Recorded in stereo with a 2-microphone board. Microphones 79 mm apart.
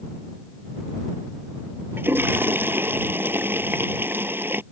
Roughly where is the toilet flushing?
Right.